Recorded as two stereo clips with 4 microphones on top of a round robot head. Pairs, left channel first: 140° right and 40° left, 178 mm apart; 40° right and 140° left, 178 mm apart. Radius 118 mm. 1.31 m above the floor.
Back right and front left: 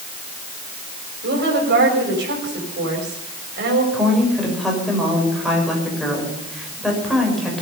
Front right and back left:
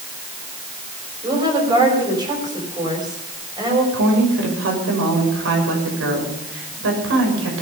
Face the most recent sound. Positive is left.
turn(degrees=130)